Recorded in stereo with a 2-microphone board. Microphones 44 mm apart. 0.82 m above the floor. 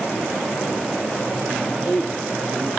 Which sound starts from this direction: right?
A man speaking, at 1.6 s.